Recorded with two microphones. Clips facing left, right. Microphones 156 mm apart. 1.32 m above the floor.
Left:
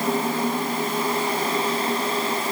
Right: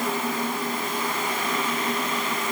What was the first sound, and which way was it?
Only background noise.